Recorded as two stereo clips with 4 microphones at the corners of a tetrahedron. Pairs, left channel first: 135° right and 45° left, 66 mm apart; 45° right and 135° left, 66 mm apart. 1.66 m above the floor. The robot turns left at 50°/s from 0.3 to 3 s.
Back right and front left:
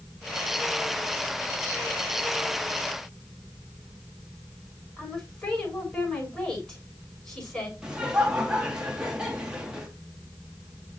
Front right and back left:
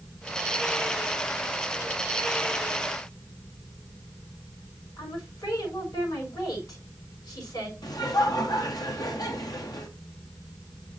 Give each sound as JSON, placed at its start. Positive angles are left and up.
{"t": 5.0, "sound": "a woman speaking", "azimuth_deg": -55, "distance_m": 7.0}
{"t": 7.8, "sound": "laughter", "azimuth_deg": -35, "distance_m": 1.9}